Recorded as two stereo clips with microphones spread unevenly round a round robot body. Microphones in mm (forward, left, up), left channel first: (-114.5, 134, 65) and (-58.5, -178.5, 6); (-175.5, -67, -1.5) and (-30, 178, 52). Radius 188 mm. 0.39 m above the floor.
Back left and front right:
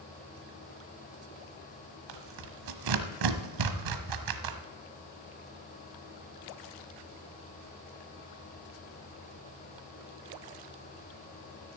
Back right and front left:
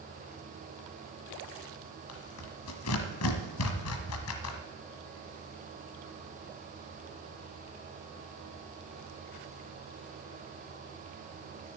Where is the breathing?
I don't hear breathing.